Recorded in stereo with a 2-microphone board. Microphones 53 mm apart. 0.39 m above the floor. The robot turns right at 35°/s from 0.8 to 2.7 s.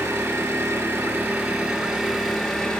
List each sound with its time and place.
0.0 s an engine running: 50° right, 1.6 m; by 2.8 s 15° left, 1.6 m